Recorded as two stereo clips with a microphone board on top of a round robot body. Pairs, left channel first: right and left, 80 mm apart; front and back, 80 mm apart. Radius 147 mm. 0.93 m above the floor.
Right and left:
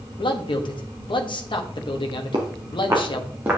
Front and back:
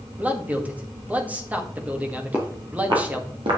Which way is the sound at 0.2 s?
105° right.